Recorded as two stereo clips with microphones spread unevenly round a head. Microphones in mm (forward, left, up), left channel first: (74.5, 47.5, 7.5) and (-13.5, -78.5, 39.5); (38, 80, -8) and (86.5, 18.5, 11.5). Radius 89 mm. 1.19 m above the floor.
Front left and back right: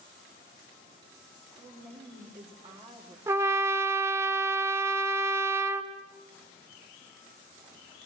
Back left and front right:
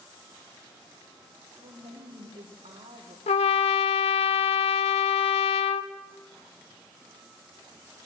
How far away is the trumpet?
About 0.8 m.